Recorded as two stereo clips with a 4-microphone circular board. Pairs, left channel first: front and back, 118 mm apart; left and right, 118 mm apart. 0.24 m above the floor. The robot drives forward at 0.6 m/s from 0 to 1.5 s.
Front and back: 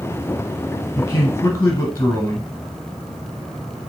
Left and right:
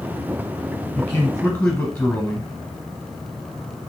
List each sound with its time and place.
1.0 s a man speaking: 20° left, 1.3 m; by 2.5 s 35° left, 1.2 m